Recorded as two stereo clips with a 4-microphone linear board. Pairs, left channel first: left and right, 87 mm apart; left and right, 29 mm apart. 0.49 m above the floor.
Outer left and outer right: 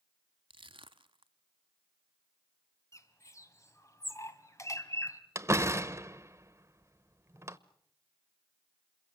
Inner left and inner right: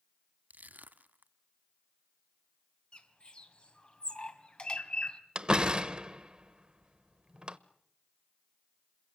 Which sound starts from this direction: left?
A bird, at 2.9 s.